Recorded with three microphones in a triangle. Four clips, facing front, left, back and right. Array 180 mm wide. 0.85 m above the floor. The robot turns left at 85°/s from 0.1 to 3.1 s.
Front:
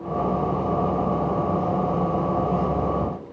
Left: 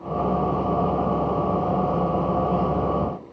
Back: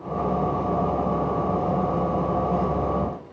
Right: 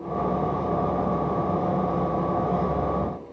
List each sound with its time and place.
Only background noise.